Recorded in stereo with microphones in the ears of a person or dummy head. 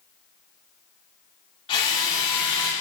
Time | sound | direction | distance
1.7 | a drill | 30° left (ahead or behind) | 2.0 m